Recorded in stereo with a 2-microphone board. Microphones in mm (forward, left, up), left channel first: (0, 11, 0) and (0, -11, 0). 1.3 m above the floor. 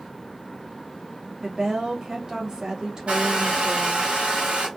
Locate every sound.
1.4 s a woman speaking: 25° right (ahead or behind), 1.2 m
3.1 s a hair dryer: 60° right (ahead or behind), 1.0 m